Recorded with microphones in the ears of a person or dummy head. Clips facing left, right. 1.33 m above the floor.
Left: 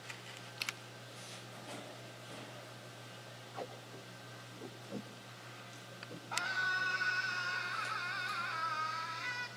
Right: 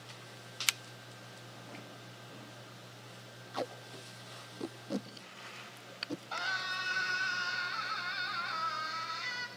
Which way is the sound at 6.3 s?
55° right (ahead or behind).